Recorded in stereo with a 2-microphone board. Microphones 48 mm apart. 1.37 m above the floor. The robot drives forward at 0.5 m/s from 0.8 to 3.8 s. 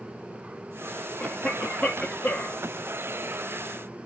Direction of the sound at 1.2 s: 15° left (ahead or behind).